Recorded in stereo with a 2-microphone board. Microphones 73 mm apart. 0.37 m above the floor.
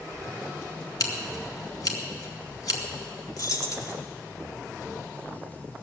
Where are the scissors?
55° left (ahead or behind), 2 m.